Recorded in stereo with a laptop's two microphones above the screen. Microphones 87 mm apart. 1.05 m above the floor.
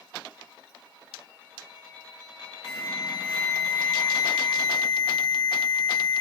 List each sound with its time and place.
2.6 s an alarm: 40° right (ahead or behind), 1.4 m